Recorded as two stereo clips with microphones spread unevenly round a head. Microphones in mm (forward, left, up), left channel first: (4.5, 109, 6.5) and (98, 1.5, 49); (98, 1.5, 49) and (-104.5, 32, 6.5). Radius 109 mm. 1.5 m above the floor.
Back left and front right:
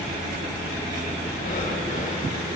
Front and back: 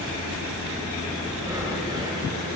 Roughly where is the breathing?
Left.